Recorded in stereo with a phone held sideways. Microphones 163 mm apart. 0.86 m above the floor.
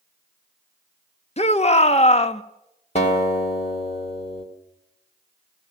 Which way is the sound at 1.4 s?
40° left (ahead or behind).